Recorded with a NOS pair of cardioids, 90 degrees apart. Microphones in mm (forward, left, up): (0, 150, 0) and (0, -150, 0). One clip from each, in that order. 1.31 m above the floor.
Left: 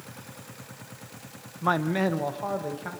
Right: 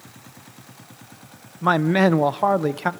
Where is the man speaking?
25° right, 0.7 m; by 2.9 s 80° right, 1.1 m.